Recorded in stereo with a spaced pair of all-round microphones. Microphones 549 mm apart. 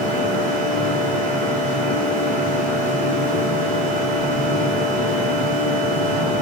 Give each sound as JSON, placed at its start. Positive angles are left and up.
{"t": 0.0, "sound": "a machine running", "side_deg": -50, "distance_m": 1.4}